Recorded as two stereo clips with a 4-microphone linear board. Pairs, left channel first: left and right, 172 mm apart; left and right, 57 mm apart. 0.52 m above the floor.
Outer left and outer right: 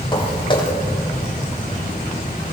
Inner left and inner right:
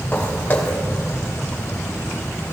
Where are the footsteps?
25° left (ahead or behind), 4 m.